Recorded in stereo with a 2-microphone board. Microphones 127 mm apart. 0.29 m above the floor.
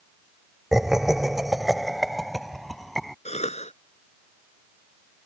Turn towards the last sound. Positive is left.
turn(degrees=55)  # may be behind; listen again after turning